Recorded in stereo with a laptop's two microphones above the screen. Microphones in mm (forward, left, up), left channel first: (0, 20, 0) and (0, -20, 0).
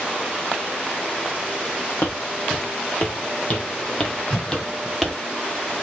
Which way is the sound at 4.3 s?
25° left (ahead or behind).